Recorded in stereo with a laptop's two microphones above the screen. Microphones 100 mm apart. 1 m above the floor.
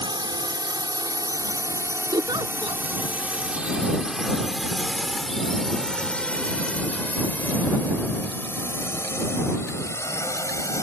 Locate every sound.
0.0 s a drone: 50° right (ahead or behind); by 10.8 s 30° left (ahead or behind)
2.1 s a giggle: 50° right (ahead or behind)